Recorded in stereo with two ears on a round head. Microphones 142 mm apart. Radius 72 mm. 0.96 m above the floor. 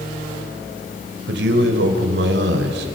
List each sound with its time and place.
1.3 s a man speaking: 80° right, 3.5 m